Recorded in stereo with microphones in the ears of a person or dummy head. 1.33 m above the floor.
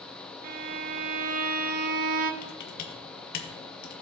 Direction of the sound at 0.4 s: 50° right (ahead or behind).